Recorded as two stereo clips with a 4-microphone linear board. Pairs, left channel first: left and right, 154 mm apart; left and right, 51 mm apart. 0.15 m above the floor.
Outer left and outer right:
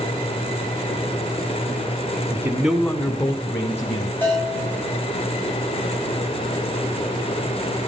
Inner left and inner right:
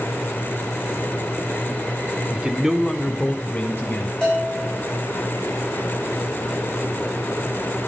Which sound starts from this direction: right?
A man speaking, at 2.3 s.